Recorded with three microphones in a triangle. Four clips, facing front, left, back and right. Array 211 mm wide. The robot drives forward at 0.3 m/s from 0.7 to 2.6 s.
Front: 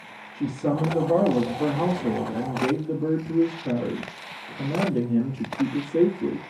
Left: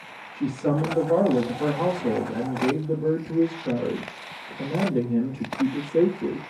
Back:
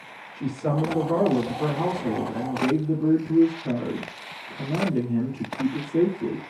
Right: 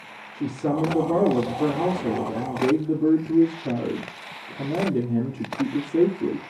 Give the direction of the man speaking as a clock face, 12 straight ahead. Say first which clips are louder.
Even, front 1 dB; 2 o'clock.